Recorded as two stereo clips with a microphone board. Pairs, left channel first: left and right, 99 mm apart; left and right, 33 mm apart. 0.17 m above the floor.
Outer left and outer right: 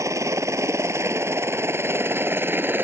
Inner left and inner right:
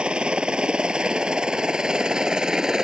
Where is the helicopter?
30° right (ahead or behind); by 2.9 s 20° right (ahead or behind).